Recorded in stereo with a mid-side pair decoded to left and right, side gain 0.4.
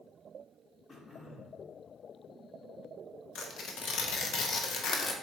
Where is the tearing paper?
65° left, 1.0 m.